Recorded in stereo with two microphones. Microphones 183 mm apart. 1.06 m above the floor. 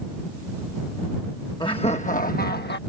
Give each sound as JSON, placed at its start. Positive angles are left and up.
{"t": 1.6, "sound": "laughter", "side_deg": 25}